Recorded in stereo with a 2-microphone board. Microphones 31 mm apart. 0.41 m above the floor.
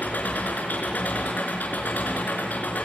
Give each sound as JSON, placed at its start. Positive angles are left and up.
{"t": 0.0, "sound": "an engine running", "side_deg": 80, "distance_m": 3.5}